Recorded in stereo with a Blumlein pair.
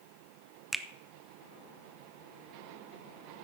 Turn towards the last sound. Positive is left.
turn(degrees=-5)